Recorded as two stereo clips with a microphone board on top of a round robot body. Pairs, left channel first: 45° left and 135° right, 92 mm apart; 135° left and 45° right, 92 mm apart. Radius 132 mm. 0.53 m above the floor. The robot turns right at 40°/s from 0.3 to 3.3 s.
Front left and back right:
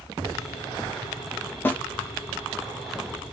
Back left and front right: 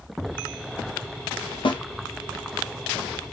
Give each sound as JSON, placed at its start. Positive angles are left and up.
{"t": 1.6, "sound": "a snare drum", "azimuth_deg": 110, "distance_m": 0.6}